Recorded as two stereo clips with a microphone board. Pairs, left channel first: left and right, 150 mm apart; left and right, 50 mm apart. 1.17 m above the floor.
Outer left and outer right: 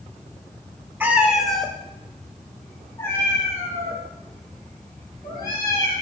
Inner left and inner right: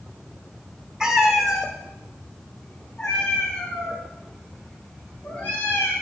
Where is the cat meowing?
15° right (ahead or behind), 1.7 m; by 5.9 s 25° left (ahead or behind), 9 m.